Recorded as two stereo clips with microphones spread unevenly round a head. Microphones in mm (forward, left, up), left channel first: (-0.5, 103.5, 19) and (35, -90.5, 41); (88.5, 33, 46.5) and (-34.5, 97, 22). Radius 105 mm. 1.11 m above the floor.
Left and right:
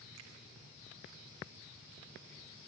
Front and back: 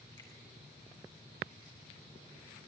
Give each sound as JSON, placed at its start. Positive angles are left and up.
{"t": 0.2, "sound": "a finger snap", "azimuth_deg": -95, "distance_m": 2.5}